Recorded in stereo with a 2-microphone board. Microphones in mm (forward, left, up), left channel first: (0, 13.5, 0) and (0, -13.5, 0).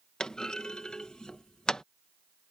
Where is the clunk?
30° left (ahead or behind).